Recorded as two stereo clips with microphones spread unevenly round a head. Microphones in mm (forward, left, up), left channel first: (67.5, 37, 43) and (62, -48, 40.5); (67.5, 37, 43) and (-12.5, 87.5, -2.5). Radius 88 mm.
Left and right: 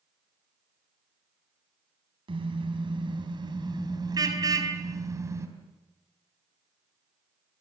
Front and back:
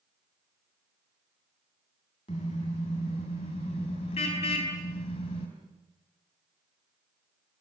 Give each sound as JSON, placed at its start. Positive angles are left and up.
{"t": 2.3, "sound": "a car horn", "azimuth_deg": -75, "distance_m": 4.5}